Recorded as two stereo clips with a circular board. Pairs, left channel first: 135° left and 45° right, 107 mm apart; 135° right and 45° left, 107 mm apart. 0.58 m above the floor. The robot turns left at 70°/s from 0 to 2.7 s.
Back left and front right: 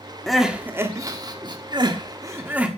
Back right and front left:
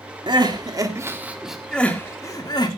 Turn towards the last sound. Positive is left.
turn(degrees=-120)